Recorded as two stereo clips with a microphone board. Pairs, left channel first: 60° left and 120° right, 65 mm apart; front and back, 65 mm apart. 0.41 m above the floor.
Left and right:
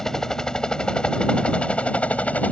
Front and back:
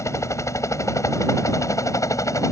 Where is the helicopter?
20° right; by 2.5 s 5° right.